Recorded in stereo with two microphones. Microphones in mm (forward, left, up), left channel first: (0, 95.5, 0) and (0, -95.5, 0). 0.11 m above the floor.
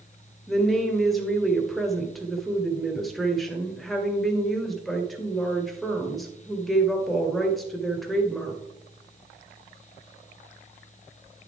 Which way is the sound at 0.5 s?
Centre (ahead or behind).